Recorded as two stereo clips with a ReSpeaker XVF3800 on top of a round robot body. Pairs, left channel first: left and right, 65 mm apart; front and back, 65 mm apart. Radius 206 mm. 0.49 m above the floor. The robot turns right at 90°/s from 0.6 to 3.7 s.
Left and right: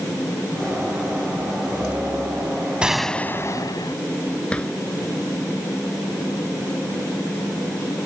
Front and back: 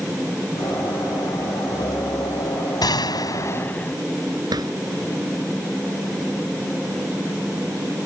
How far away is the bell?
No bell in this recording.